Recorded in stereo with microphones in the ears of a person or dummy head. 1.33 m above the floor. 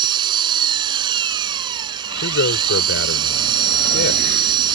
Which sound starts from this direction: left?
A man speaking, at 2.2 s.